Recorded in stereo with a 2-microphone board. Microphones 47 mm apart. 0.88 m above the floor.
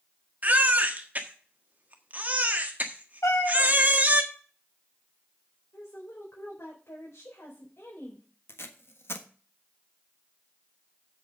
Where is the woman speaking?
55° left (ahead or behind), 4 m.